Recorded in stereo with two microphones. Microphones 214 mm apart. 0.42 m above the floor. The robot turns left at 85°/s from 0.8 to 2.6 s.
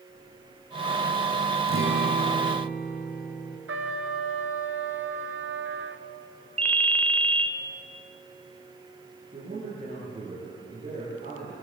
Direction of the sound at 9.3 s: 40° right (ahead or behind).